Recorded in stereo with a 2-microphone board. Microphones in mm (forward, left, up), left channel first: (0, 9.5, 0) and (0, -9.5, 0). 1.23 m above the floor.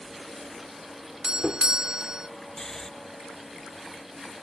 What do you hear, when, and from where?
1.2 s a doorbell: 45° right (ahead or behind)
2.6 s snoring: 20° left (ahead or behind)